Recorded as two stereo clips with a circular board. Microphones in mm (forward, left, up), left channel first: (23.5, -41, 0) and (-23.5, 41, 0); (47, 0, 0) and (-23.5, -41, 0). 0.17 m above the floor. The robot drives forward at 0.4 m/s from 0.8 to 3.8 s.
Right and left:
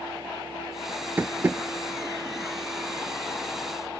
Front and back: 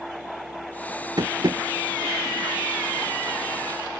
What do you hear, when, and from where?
1.2 s tapping: 170° right; by 1.6 s 175° right